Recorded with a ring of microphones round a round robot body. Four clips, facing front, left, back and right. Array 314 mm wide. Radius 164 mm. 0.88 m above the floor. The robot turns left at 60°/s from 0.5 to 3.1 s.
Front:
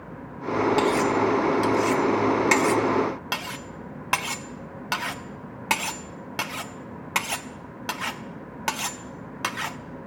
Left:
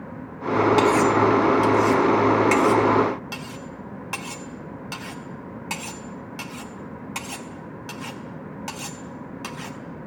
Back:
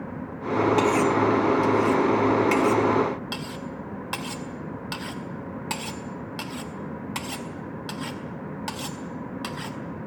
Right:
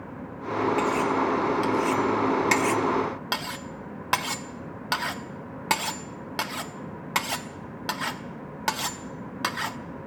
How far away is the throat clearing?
I don't hear throat clearing.